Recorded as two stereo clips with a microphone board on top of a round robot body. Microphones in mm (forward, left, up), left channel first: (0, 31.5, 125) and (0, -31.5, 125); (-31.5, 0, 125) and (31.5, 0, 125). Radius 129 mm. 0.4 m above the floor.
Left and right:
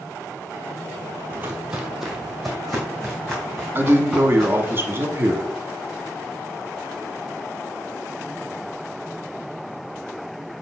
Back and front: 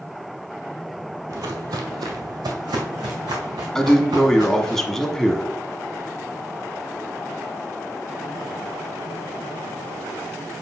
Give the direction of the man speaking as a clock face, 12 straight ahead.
3 o'clock.